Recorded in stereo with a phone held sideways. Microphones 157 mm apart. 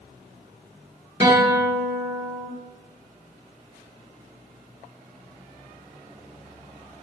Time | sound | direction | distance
1.2 | a guitar | 30° right (ahead or behind) | 0.6 m